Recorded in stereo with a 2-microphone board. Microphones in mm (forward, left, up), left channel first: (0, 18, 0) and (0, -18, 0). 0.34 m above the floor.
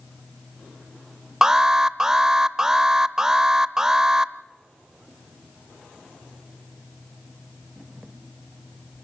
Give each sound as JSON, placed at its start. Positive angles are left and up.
{"t": 1.4, "sound": "an alarm", "side_deg": -15, "distance_m": 0.6}